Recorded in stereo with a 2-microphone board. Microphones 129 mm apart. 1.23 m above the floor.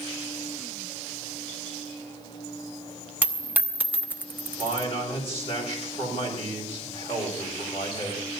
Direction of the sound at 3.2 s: 15° right (ahead or behind).